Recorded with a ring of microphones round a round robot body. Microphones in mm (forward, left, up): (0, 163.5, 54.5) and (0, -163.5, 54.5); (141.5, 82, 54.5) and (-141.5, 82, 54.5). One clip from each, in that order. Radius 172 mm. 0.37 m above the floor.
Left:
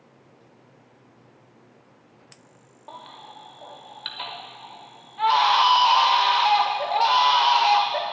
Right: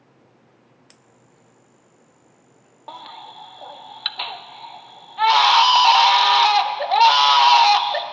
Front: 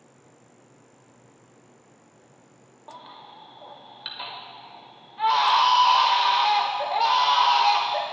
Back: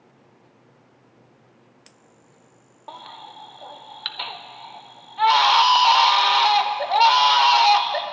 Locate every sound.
2.9 s a baby crying: 130° right, 0.6 m